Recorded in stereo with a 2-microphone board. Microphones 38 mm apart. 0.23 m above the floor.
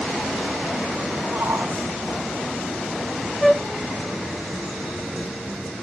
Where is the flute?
Centre (ahead or behind).